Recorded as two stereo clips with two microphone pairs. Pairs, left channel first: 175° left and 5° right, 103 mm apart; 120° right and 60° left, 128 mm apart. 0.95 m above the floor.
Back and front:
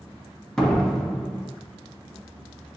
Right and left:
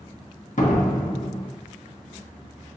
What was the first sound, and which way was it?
A door slam, 100° right.